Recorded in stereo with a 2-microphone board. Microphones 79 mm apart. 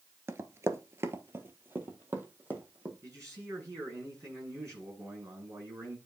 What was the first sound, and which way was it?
Running footsteps, 30° right (ahead or behind).